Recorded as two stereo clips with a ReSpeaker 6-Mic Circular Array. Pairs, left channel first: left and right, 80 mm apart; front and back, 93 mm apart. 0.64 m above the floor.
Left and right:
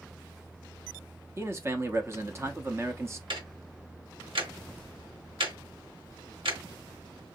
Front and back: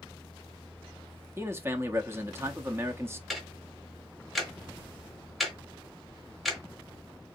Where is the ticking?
90° right, 1.2 m.